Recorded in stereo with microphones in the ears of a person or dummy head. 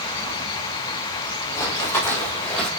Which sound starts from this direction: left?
Running footsteps, at 1.6 s.